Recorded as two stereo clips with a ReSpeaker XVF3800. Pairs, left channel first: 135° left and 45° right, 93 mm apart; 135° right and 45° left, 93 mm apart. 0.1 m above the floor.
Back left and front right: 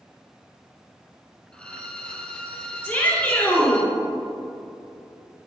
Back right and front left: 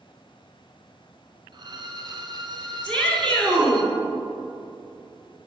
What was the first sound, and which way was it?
A violin, 60° left.